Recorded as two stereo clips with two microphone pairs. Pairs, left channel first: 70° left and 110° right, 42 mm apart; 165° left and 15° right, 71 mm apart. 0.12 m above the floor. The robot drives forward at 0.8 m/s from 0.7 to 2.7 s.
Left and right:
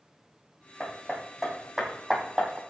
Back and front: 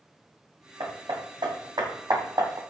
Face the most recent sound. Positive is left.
turn(degrees=-40)